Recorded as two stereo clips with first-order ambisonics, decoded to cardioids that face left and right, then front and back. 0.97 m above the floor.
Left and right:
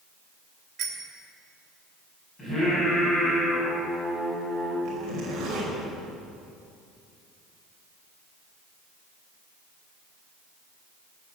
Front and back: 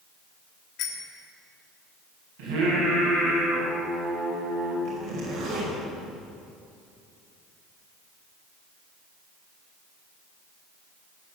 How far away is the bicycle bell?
About 2.5 m.